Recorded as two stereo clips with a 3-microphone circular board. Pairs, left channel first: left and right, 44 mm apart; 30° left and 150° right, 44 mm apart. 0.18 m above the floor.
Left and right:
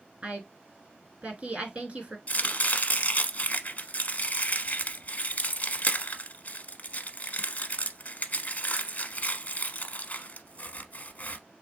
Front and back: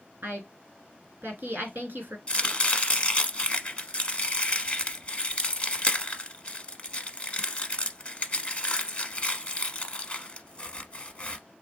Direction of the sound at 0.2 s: 140° right.